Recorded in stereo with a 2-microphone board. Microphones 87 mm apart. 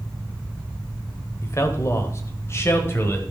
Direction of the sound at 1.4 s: 30° left (ahead or behind).